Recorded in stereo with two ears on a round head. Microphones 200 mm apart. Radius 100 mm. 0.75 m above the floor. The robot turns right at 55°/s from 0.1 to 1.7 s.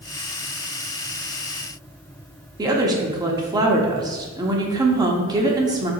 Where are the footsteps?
No footsteps in this recording.